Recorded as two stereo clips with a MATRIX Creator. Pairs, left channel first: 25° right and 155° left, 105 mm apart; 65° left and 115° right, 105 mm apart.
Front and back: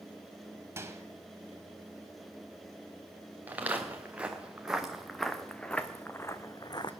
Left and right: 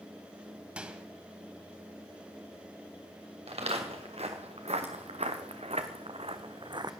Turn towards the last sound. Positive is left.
turn(degrees=-65)